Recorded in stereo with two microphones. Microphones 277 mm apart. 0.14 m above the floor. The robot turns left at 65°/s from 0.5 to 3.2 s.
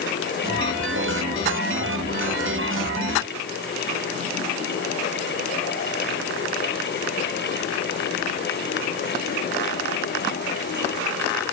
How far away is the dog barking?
No dog barking in this recording.